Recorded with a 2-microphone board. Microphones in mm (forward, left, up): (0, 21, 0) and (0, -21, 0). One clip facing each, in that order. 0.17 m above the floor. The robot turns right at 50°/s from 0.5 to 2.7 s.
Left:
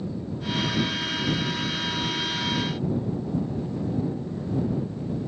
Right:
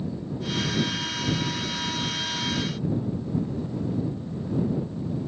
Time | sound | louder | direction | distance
0.0 | an aircraft | even | 5° right | ?